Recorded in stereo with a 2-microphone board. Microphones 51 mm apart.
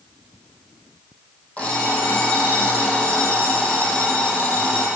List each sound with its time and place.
1.6 s an alarm clock: 25° left (ahead or behind), 2 m